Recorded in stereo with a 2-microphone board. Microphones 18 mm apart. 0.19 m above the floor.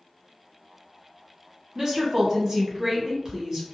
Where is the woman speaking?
30° right (ahead or behind), 1.2 m.